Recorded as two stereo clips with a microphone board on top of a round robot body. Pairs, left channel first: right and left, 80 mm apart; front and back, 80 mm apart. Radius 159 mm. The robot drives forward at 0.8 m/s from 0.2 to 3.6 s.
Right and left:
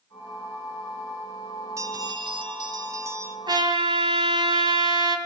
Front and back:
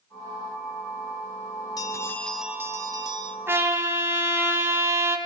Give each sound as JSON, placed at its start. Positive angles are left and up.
{"t": 1.8, "sound": "a bell", "azimuth_deg": 40, "distance_m": 0.7}
{"t": 3.5, "sound": "a trumpet", "azimuth_deg": 120, "distance_m": 3.0}